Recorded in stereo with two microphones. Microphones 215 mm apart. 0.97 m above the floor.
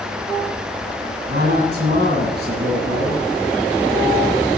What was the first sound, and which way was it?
A man speaking, 45° right (ahead or behind).